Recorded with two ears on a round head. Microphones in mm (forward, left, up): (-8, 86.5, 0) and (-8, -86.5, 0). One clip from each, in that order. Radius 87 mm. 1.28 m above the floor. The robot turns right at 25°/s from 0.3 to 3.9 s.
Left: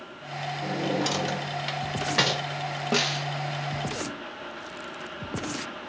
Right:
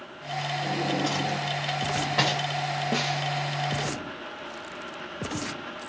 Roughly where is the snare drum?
Left.